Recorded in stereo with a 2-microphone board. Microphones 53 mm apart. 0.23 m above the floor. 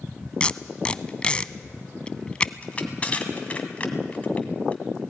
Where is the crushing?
25° left (ahead or behind), 1.8 m.